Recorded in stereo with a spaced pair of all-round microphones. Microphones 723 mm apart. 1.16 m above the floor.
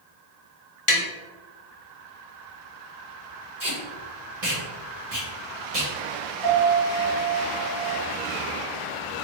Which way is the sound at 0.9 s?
45° left (ahead or behind).